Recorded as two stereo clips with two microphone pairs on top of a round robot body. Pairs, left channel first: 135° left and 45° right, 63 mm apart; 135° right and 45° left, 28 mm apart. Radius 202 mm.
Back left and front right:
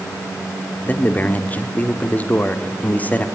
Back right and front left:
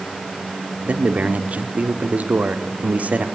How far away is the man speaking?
About 1.6 m.